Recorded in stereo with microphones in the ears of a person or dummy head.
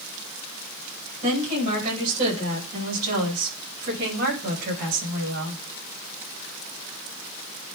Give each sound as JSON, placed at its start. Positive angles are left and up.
{"t": 1.2, "sound": "a woman speaking", "side_deg": -35, "distance_m": 6.5}